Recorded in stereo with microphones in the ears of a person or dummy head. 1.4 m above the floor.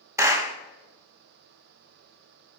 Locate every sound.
0.2 s a clap: 10° right (ahead or behind), 0.9 m